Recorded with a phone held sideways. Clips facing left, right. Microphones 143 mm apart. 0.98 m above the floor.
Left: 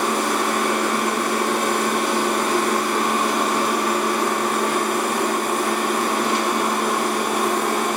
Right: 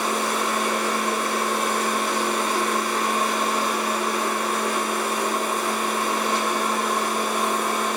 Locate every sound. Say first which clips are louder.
0.0 s a machine running: left 3 dB; 85° left, 1.8 m